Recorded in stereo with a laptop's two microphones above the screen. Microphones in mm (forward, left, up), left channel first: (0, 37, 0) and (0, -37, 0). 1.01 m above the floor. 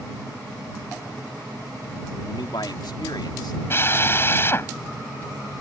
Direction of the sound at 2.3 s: 75° left (ahead or behind).